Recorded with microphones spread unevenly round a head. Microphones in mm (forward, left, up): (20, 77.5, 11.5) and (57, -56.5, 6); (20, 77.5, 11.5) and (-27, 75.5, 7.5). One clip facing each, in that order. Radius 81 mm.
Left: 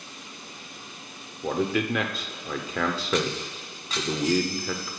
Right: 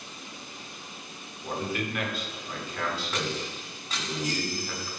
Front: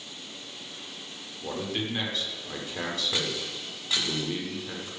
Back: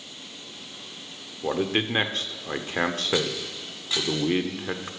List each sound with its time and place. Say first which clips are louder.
1.4 s a man speaking: left 6 dB, back 7 dB; 140° left, 0.9 m